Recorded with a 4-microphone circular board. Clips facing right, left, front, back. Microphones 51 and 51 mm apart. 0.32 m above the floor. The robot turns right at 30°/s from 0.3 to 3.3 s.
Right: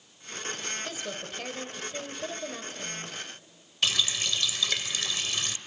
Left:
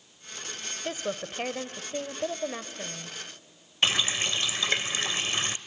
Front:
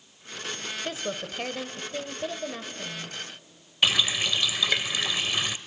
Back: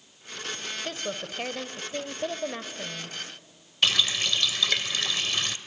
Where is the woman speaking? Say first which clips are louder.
Left 4 dB, front 2 dB; 75° left, 1.0 m; by 3.1 s 145° left, 1.0 m.